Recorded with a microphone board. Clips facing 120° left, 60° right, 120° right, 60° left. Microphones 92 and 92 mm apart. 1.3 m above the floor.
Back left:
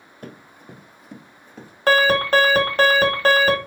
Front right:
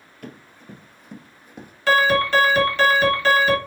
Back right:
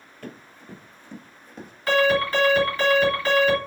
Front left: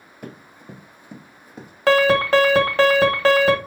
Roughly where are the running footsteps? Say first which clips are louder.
Even, front left 2 dB; behind left.